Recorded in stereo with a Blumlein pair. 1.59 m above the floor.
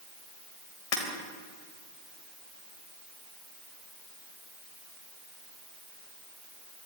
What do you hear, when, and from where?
0.9 s breaking glass: 35° left, 4 m